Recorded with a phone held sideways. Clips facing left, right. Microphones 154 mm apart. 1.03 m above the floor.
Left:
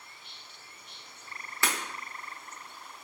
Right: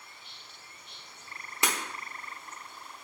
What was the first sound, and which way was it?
Breaking glass, 20° right (ahead or behind).